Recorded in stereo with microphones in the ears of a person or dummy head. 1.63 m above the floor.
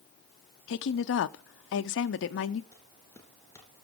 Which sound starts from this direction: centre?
Footsteps, at 2.7 s.